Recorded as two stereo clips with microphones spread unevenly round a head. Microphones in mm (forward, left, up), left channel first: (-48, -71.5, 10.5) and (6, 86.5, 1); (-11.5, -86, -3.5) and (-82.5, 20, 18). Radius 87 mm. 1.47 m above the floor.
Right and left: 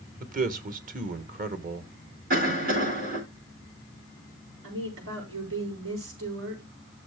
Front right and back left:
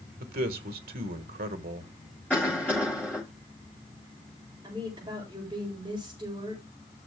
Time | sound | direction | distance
0.2 | a man speaking | 110° left | 1.3 m
2.3 | a cough | 30° left | 4.5 m
4.6 | a woman speaking | 60° left | 6.5 m